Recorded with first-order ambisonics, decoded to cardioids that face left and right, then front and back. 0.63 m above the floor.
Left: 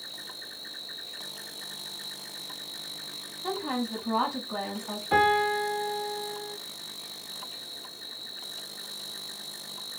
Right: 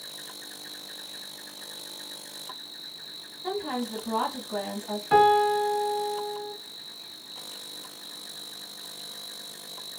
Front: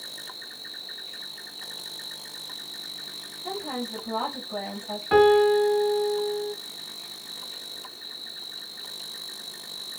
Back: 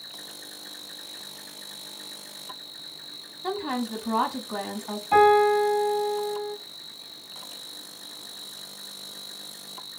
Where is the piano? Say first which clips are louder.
Right 4 dB, even; 15° right, 1.2 m.